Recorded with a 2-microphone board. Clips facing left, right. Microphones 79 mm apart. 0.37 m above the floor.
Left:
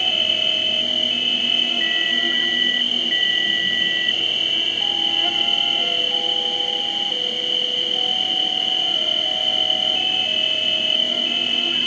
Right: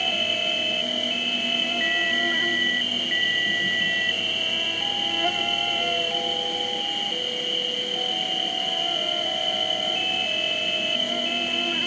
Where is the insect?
20° right (ahead or behind), 1.2 m.